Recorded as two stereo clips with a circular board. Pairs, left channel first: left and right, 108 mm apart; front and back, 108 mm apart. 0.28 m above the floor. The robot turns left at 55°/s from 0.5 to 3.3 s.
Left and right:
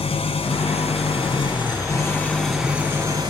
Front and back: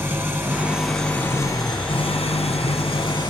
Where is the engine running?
110° left, 2 m; by 3.3 s 45° right, 2 m.